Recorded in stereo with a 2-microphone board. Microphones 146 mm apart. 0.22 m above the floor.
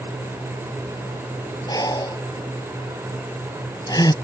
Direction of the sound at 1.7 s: 25° left (ahead or behind).